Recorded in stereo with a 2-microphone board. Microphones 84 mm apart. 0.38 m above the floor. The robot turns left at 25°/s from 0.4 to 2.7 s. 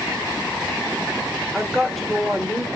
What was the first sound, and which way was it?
A woman speaking, centre (ahead or behind).